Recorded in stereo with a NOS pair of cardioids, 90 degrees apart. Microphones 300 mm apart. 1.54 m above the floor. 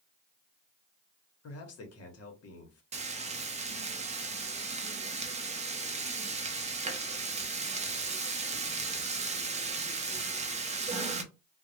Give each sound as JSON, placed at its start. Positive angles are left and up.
{"t": 1.4, "sound": "a man speaking", "azimuth_deg": 55, "distance_m": 1.0}
{"t": 2.9, "sound": "frying", "azimuth_deg": -20, "distance_m": 0.6}